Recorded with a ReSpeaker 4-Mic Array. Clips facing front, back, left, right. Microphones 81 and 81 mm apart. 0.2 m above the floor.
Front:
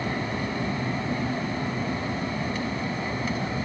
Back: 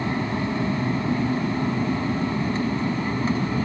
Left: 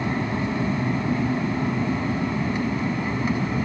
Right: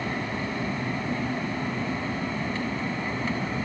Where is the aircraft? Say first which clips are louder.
Back 4 dB, left 5 dB; 140° left; by 3.7 s 155° left.